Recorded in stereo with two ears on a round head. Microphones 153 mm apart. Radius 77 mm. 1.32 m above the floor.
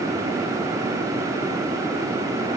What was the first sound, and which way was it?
Only background noise.